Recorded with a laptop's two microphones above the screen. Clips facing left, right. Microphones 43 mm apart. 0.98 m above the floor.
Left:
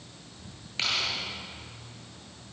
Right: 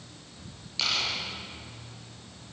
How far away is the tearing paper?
About 7.5 m.